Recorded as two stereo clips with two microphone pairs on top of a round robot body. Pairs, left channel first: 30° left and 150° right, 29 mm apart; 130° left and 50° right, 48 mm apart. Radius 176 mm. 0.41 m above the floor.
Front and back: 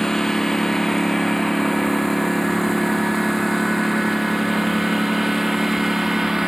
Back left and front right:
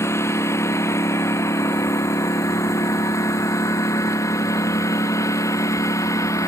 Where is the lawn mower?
105° left; by 6.5 s 130° left.